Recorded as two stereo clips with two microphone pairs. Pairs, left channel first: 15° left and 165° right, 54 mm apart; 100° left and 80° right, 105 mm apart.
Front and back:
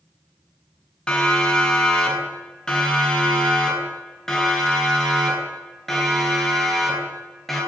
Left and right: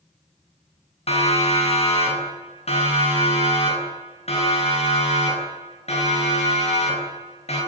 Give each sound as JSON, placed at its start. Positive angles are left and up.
{"t": 1.1, "sound": "a siren", "azimuth_deg": 85, "distance_m": 10.0}